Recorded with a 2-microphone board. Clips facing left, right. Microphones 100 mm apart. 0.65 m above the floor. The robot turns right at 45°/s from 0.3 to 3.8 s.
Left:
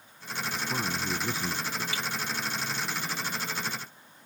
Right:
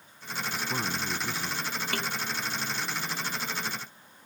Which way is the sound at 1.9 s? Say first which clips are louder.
Right 2 dB; 60° right (ahead or behind).